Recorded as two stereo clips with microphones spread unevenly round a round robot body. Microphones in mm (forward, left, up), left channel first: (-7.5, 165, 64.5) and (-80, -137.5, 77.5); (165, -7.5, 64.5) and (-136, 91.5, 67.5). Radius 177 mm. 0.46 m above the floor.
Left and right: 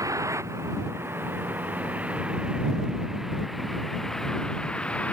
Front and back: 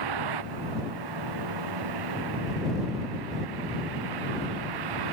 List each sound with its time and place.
0.0 s a vehicle: 175° left; by 5.1 s 160° left